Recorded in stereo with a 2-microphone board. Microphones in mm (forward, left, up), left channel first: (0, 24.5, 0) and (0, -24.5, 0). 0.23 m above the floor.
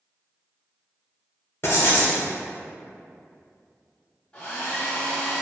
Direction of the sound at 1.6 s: 55° left (ahead or behind).